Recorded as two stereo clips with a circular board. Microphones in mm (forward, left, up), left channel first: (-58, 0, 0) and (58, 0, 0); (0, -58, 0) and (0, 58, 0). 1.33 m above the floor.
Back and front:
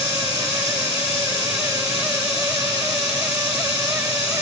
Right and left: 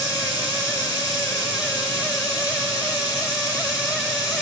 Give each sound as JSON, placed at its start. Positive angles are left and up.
{"t": 0.0, "sound": "running water", "azimuth_deg": -150, "distance_m": 2.5}